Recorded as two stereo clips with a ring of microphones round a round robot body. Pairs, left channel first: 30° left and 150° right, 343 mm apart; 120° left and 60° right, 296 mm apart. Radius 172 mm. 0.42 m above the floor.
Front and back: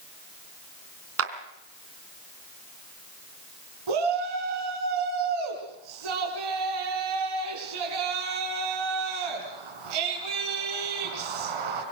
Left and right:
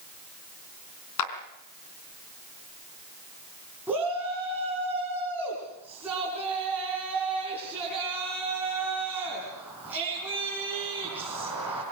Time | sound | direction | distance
1.2 | a clap | 160° left | 3 m
3.9 | a shout | 145° right | 5 m